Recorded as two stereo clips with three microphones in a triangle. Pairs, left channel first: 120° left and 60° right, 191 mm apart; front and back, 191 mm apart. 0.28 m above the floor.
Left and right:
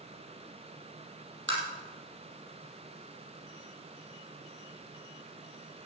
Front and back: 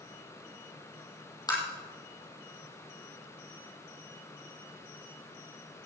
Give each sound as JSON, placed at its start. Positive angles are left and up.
{"t": 1.5, "sound": "tapping", "azimuth_deg": -70, "distance_m": 4.0}